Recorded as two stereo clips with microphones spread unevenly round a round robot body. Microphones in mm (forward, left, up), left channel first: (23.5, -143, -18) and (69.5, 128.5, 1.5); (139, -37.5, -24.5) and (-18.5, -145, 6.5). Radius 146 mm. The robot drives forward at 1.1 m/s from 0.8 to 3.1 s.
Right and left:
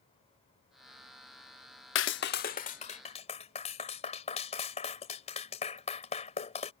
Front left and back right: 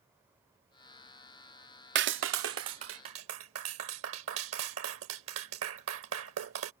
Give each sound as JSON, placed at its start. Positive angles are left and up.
{"t": 1.9, "sound": "a clap", "azimuth_deg": -125}